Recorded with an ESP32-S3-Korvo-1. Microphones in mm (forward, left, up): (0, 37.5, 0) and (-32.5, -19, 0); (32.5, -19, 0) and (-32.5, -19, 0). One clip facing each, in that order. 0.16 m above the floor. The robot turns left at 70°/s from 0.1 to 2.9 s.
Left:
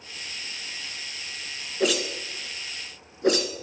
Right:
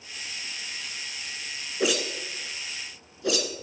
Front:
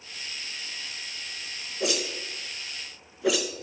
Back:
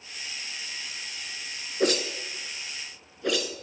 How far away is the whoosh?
About 1.1 m.